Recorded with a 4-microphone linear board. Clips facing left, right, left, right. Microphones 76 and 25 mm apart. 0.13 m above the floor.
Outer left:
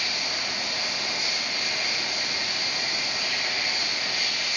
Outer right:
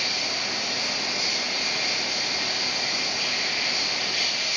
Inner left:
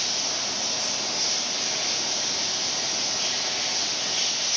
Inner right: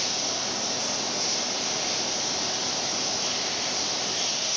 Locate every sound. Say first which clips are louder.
0.0 s running water: outer right 1 dB, inner left 1 dB; 50° left (ahead or behind), 9.5 m